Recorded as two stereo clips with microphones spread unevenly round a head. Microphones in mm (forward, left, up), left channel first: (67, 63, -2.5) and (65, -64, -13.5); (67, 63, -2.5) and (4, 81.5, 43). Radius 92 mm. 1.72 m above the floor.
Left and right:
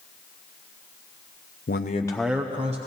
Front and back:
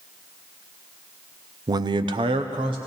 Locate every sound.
1.7 s a man speaking: 130° left, 0.6 m; by 2.8 s 150° right, 0.8 m